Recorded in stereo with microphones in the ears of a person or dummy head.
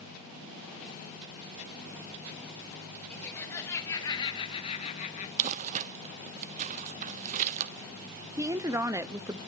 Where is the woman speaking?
20° right (ahead or behind), 0.7 m.